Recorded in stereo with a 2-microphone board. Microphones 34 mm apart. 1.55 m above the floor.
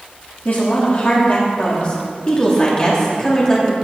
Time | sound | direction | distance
0.5 | a woman speaking | 50° left (ahead or behind) | 3 m